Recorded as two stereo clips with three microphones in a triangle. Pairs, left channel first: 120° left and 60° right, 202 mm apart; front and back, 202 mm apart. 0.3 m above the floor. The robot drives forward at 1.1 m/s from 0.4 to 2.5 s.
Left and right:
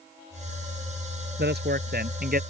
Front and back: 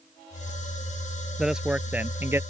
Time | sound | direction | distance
1.4 | a man speaking | 90° right | ?